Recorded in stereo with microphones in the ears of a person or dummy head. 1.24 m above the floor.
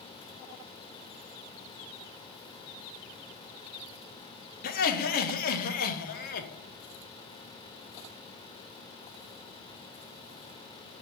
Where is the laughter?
40° left (ahead or behind), 0.9 m.